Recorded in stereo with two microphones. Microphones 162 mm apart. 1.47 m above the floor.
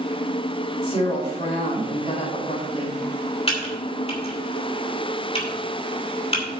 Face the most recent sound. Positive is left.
turn(degrees=35)  # may be behind; listen again after turning